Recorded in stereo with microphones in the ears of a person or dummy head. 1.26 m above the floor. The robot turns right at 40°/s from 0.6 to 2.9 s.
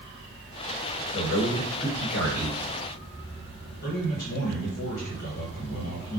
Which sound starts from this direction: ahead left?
A man speaking, at 1.1 s.